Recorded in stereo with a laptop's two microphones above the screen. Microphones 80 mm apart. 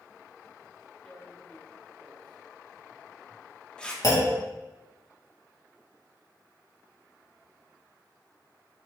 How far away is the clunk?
About 1.6 m.